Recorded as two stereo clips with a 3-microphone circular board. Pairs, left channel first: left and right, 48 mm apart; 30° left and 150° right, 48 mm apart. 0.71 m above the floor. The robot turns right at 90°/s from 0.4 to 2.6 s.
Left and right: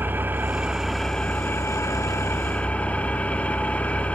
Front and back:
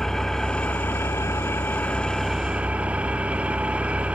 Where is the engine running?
45° right, 1.0 m; by 4.2 s 150° left, 1.0 m.